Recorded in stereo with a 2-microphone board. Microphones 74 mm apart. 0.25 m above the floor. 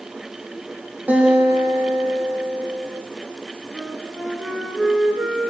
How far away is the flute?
About 3 m.